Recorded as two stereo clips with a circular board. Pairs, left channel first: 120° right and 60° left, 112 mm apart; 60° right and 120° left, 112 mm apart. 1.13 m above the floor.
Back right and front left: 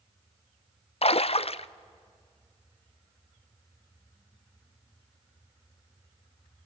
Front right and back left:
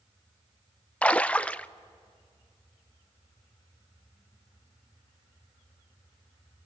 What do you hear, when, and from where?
1.0 s a splash: 140° right, 0.5 m